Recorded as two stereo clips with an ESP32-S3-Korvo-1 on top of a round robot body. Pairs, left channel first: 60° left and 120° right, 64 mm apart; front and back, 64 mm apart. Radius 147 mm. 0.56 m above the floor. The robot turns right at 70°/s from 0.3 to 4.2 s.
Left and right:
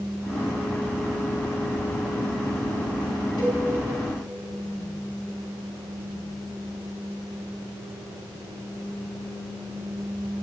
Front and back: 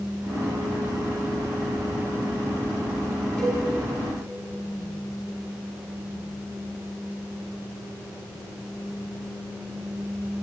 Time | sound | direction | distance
3.4 | a cowbell | 75° left | 8 m